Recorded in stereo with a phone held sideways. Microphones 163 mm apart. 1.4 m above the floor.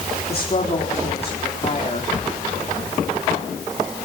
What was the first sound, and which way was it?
A woman speaking, 40° left (ahead or behind).